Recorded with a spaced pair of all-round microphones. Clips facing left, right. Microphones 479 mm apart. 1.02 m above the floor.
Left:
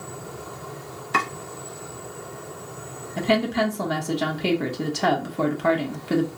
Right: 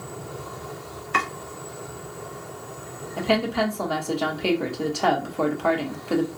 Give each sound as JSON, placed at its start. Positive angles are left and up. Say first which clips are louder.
{"t": 1.1, "sound": "chopping", "louder": "left 2 dB", "side_deg": 60, "distance_m": 0.8}
{"t": 3.2, "sound": "a woman speaking", "louder": "left 1 dB", "side_deg": 40, "distance_m": 0.6}